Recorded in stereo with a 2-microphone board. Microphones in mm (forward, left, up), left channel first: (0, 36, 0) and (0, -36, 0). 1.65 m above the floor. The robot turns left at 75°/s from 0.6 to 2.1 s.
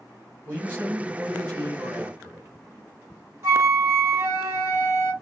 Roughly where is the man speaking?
Ahead right.